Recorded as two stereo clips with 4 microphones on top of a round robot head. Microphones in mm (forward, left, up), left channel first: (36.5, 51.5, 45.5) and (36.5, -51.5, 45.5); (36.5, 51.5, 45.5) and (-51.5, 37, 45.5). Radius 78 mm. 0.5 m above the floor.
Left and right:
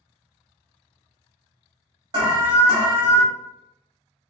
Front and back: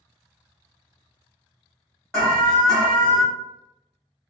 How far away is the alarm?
About 1.0 m.